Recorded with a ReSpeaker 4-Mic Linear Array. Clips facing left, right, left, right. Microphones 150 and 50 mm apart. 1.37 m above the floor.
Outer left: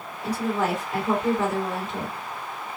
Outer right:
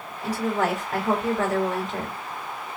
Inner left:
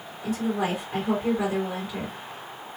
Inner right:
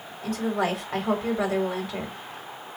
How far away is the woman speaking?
About 3 m.